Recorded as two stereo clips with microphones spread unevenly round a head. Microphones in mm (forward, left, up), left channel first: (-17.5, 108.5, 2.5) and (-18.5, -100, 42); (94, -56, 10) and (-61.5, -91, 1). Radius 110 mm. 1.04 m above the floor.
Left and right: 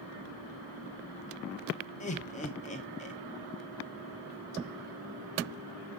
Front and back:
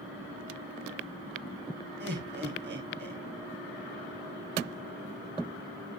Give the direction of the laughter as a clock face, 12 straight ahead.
7 o'clock.